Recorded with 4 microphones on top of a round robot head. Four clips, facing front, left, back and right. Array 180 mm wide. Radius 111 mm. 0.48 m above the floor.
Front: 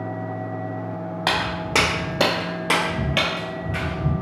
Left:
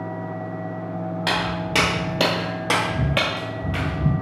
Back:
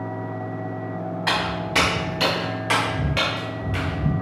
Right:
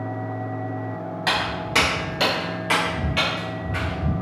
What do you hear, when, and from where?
1.3 s footsteps: 15° left, 1.2 m; by 4.1 s 115° left, 0.9 m